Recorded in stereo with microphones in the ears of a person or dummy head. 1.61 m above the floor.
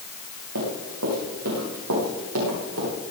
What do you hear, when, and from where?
0.6 s running footsteps: 70° right (ahead or behind), 6.5 m; by 2.9 s 80° right, 8.5 m